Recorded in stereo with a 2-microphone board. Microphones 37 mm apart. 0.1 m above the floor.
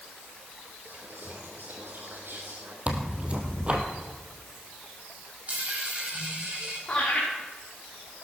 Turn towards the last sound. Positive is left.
turn(degrees=25)  # may be behind; listen again after turning